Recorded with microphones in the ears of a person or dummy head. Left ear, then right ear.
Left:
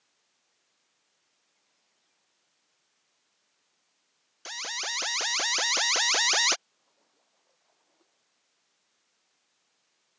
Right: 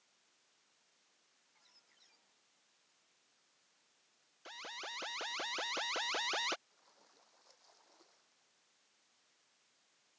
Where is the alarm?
65° left (ahead or behind).